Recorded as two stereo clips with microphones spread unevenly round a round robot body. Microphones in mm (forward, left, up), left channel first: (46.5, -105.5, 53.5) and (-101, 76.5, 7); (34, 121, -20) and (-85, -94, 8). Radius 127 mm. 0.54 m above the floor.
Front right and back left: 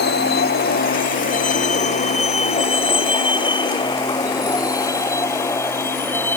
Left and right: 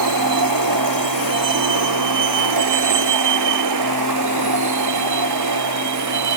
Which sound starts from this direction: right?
A vehicle, at 0.0 s.